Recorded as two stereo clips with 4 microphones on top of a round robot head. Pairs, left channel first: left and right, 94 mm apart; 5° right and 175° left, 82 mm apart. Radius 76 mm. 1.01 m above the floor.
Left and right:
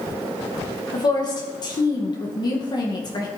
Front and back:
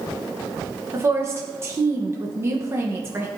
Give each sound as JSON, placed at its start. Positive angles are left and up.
{"t": 0.9, "sound": "a woman speaking", "azimuth_deg": 120, "distance_m": 1.1}